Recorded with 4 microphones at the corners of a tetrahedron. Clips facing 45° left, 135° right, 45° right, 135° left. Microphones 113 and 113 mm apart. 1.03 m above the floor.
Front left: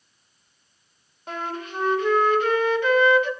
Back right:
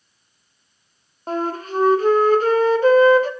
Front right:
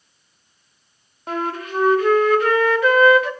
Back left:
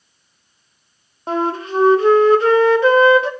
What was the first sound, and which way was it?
A flute, 170° right.